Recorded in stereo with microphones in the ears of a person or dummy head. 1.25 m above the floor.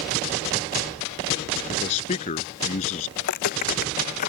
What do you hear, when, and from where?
1.7 s a man speaking: 35° left (ahead or behind)
3.2 s footsteps: 60° left (ahead or behind); by 4.3 s 50° left (ahead or behind)